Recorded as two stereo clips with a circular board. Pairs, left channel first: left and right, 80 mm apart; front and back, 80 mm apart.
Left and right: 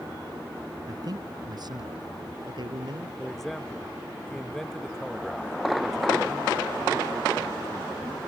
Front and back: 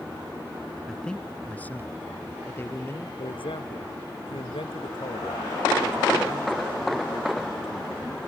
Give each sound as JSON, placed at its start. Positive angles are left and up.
{"t": 0.9, "sound": "a man speaking", "azimuth_deg": -85}
{"t": 3.2, "sound": "a man speaking", "azimuth_deg": 5}